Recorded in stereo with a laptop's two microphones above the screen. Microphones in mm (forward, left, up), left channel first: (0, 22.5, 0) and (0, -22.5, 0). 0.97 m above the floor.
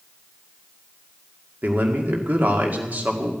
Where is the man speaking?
35° right (ahead or behind), 2 m.